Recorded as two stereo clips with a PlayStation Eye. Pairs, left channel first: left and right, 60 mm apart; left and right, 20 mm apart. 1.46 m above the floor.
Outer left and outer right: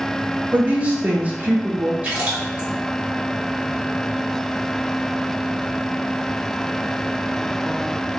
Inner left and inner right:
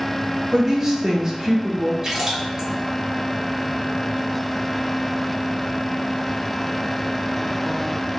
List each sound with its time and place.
0.5 s a woman speaking: 25° right (ahead or behind), 0.9 m
2.0 s a splash: 20° right (ahead or behind), 1.8 m